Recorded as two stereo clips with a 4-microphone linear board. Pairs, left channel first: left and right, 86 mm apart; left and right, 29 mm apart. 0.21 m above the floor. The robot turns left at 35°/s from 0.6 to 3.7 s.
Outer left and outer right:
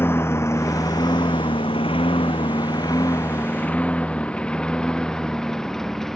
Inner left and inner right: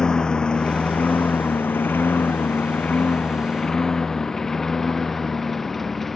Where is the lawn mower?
25° left (ahead or behind); by 6.2 s 5° left (ahead or behind).